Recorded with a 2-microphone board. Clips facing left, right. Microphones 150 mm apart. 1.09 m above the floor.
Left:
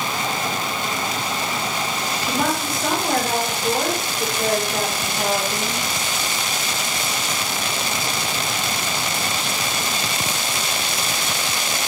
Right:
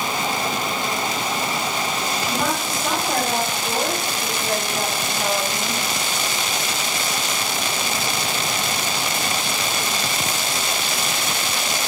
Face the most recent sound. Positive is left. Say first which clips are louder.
# left 3 dB
turn(degrees=60)  # may be behind; listen again after turning